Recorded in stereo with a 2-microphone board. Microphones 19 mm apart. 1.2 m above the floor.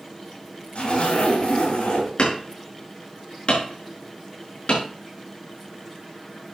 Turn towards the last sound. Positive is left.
turn(degrees=65)  # may be behind; listen again after turning